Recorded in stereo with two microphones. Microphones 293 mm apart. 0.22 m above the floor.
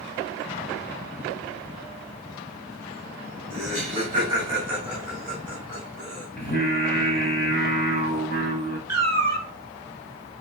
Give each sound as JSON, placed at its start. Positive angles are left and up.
{"t": 3.5, "sound": "laughter", "side_deg": -25, "distance_m": 1.7}
{"t": 6.4, "sound": "singing", "side_deg": 35, "distance_m": 0.8}
{"t": 8.9, "sound": "a cat meowing", "side_deg": -60, "distance_m": 0.9}